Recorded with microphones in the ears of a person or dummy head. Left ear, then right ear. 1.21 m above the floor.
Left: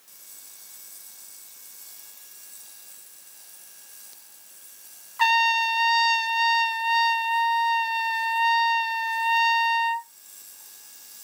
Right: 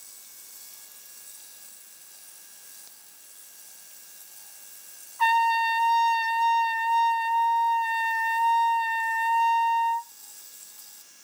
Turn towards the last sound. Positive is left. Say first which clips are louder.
# left 1 dB
turn(degrees=50)  # may be behind; listen again after turning